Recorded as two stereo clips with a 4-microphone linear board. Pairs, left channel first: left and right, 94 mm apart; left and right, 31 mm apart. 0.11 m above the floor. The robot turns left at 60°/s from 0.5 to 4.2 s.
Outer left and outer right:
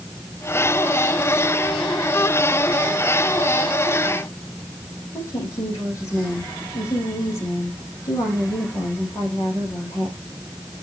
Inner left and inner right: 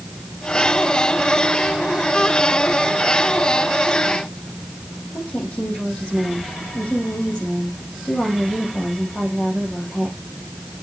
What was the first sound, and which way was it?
A woman speaking, 35° left (ahead or behind).